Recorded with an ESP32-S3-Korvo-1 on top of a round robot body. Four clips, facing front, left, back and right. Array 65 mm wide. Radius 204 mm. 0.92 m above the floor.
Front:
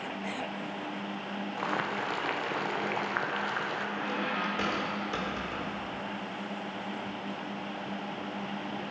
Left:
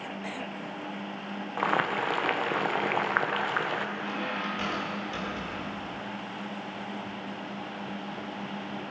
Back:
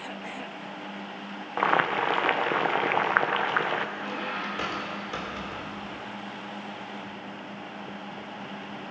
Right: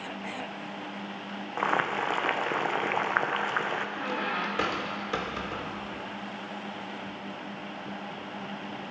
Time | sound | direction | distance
1.6 | boiling | straight behind | 1.0 m
4.0 | a squeak | 90° right | 1.5 m